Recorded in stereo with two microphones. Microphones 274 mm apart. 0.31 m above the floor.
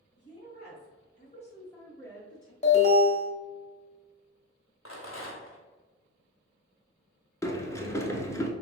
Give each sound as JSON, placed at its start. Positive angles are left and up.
{"t": 0.2, "sound": "a woman speaking", "side_deg": 40, "distance_m": 1.5}
{"t": 2.6, "sound": "an alarm", "side_deg": 25, "distance_m": 1.2}
{"t": 4.8, "sound": "a rattle", "side_deg": 50, "distance_m": 1.2}
{"t": 7.4, "sound": "a sliding door", "side_deg": 10, "distance_m": 0.6}